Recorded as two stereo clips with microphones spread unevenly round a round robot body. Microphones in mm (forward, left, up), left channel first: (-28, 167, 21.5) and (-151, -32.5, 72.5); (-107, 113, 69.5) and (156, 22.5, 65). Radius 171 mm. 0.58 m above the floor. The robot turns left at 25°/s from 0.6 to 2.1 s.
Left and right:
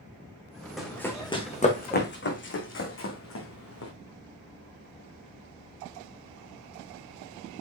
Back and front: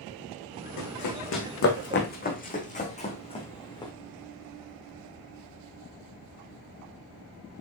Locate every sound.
0.8 s running footsteps: 155° left, 2.5 m; by 3.9 s 85° left, 3 m